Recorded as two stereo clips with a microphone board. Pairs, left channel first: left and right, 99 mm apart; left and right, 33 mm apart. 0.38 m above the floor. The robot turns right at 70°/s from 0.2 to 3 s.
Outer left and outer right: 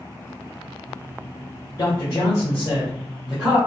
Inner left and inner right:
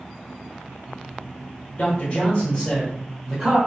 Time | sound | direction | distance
1.8 | a man speaking | 105° left | 1.7 m